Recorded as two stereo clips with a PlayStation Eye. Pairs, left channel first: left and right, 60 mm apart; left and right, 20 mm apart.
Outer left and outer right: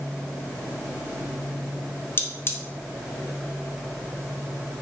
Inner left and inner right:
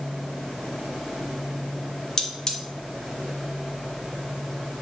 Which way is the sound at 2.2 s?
35° left (ahead or behind).